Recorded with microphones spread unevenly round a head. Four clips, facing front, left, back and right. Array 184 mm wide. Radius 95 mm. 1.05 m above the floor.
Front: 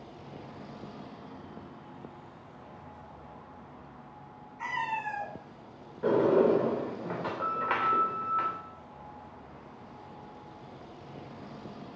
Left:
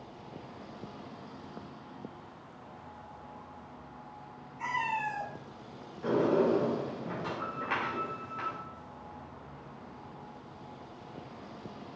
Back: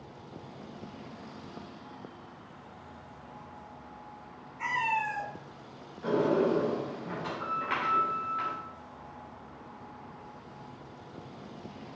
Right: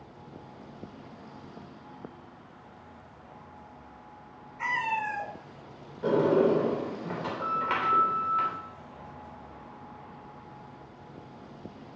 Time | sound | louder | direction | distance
4.6 | a cat meowing | right 2 dB, back 3 dB | 110° right | 5 m
6.0 | a sliding door | right 4 dB, front 3 dB | 35° right | 3 m